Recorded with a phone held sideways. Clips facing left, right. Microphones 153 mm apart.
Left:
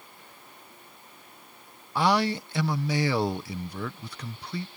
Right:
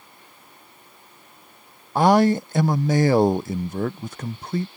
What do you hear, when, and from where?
1.9 s a man speaking: 45° right (ahead or behind)